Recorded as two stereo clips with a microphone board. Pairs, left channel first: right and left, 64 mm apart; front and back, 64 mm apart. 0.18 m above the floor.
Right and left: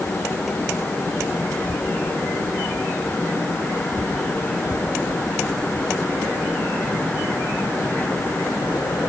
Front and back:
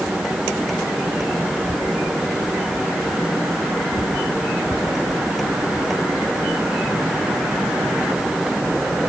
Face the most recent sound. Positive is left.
No sound to turn to.